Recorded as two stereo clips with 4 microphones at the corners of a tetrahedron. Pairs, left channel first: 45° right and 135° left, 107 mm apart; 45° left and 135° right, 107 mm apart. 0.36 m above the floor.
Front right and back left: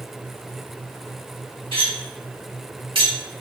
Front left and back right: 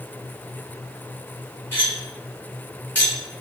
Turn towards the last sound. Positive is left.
turn(degrees=115)